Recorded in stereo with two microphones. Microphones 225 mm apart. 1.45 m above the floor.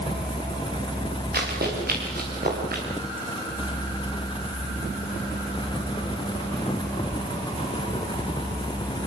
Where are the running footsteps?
45° right (ahead or behind), 9.5 m; by 2.8 s 40° right (ahead or behind), 11 m.